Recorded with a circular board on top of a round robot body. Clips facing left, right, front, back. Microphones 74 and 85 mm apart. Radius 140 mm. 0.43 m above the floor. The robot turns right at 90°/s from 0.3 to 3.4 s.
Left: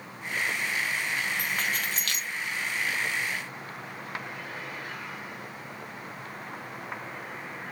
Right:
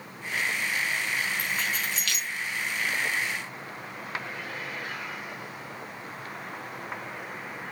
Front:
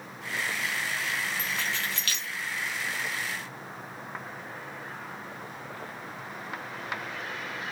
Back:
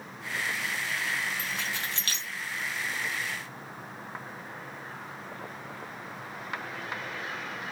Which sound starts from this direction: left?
Keys jangling, at 1.4 s.